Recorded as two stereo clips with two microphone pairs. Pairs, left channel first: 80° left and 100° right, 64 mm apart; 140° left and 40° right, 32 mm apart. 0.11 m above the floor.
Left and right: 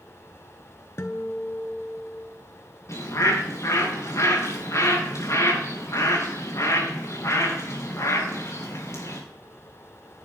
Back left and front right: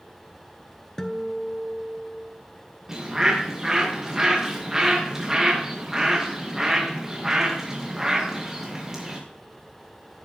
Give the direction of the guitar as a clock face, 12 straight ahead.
9 o'clock.